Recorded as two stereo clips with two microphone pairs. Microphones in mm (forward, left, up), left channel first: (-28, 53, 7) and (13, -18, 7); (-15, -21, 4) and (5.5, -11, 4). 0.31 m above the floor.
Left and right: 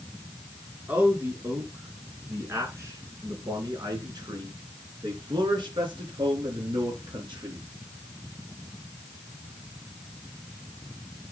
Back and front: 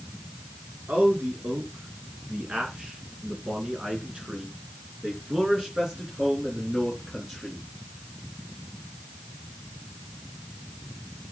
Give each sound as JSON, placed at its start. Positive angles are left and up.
{"t": 0.9, "sound": "a man speaking", "azimuth_deg": 10, "distance_m": 3.5}